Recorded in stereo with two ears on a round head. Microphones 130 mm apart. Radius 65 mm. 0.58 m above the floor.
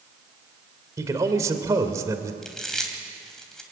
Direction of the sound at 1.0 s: 20° right (ahead or behind).